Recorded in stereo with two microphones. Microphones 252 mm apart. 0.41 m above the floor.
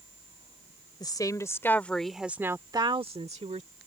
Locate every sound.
1.0 s a woman speaking: 15° left (ahead or behind); by 3.7 s 30° right (ahead or behind)